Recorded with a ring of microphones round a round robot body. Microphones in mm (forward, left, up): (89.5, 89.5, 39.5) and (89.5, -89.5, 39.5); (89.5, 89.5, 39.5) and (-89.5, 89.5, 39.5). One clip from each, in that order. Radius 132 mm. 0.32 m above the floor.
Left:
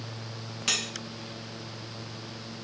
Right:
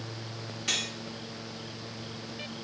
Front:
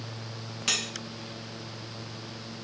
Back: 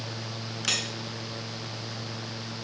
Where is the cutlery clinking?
95° left, 2.5 m.